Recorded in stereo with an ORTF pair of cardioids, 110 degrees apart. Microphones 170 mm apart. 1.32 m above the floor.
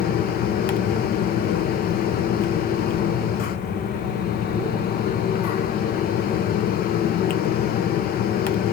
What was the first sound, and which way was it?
A fan, 65° left.